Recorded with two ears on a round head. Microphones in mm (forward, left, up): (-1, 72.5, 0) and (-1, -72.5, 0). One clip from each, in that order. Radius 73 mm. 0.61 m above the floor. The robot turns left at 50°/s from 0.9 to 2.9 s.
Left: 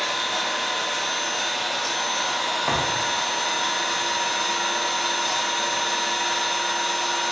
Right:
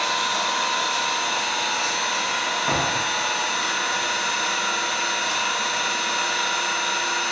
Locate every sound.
0.0 s an engine running: 130° right, 1.5 m; by 7.3 s 130° left, 1.5 m
2.7 s a thud: 70° left (ahead or behind), 0.9 m; by 3.1 s 60° left (ahead or behind), 0.9 m